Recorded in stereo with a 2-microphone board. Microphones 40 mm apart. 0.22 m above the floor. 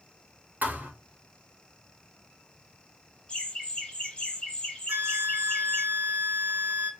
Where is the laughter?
20° left (ahead or behind), 1.5 m.